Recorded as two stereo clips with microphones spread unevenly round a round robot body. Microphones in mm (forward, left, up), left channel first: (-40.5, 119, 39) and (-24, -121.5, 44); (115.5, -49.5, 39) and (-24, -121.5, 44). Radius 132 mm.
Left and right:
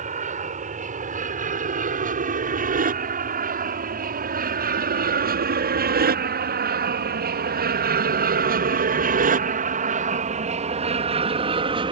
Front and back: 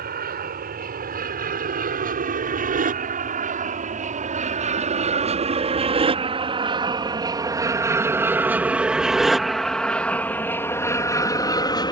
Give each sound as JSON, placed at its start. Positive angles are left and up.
{"t": 0.0, "sound": "an aircraft", "azimuth_deg": -145}